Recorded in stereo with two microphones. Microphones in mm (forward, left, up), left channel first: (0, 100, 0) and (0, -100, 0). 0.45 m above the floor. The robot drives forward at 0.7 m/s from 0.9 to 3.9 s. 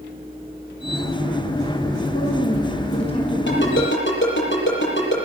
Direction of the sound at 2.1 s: 30° left (ahead or behind).